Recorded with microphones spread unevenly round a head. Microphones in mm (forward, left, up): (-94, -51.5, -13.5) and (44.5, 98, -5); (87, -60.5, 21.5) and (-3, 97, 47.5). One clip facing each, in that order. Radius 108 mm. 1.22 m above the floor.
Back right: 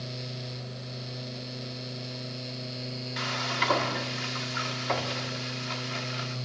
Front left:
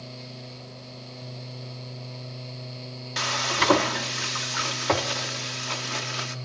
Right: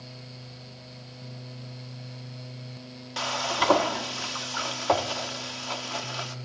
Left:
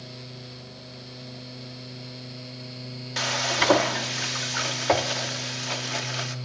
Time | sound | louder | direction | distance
3.2 | frying | front left 6 dB, left 1 dB | 50° left | 1.1 m